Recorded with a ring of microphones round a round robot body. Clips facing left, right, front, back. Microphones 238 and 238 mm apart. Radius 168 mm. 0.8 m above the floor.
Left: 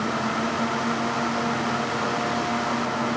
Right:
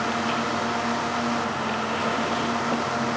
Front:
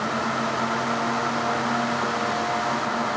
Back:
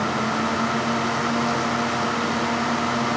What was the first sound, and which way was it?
Only background noise.